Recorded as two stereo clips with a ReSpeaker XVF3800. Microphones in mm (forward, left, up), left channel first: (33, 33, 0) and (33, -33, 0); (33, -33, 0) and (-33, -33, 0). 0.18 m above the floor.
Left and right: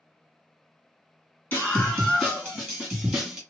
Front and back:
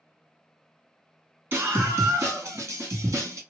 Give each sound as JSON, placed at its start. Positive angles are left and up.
{"t": 1.5, "sound": "a scream", "azimuth_deg": 140, "distance_m": 2.0}